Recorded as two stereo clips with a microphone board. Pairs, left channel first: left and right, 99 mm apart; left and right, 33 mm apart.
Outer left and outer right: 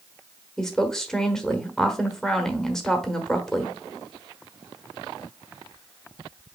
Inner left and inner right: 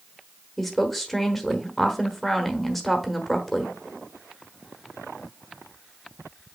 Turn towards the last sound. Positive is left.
turn(degrees=5)  # may be behind; listen again after turning